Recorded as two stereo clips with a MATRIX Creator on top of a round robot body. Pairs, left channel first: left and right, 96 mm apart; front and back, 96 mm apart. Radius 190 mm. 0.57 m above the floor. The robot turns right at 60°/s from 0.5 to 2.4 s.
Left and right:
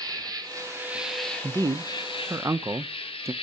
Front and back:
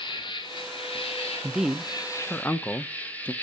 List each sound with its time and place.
0.0 s an insect: 40° right, 1.5 m; by 3.4 s 75° left, 1.5 m
1.4 s a man speaking: 110° right, 0.8 m; by 3.3 s 55° right, 0.8 m